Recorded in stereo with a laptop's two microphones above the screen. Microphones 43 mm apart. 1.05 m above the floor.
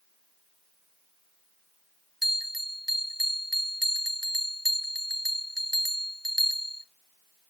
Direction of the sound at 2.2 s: 5° right (ahead or behind).